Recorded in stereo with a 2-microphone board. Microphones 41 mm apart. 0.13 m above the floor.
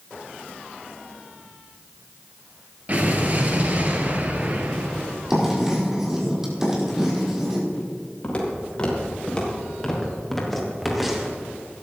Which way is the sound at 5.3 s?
10° right (ahead or behind).